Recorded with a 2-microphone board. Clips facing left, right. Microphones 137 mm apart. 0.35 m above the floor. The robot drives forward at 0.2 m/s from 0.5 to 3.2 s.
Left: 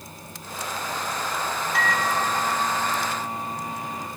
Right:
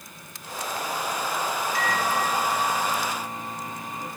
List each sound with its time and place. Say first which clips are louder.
1.7 s a microwave: left 2 dB; 65° left (ahead or behind), 1.9 m; by 4.1 s 60° left (ahead or behind), 1.9 m